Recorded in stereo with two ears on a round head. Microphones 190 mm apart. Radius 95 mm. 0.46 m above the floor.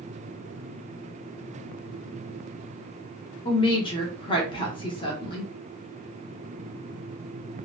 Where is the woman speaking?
25° left (ahead or behind), 0.9 m.